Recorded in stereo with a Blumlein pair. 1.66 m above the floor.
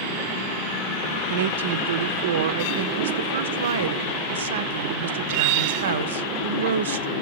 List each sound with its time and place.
1.3 s a woman speaking: 60° right, 0.6 m